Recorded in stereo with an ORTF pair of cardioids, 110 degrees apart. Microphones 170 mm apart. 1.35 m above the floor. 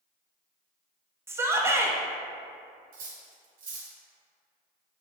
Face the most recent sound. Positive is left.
turn(degrees=-60)